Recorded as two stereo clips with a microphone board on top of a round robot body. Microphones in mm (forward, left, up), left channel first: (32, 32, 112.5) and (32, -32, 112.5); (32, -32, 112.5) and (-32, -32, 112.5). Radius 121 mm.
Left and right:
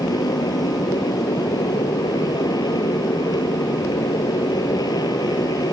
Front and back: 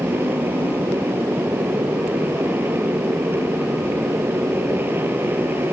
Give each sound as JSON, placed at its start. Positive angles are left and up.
{"t": 0.0, "sound": "a motorcycle", "azimuth_deg": 120}